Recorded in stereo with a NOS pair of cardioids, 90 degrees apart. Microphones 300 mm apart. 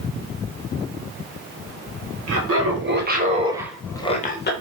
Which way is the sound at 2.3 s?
55° right.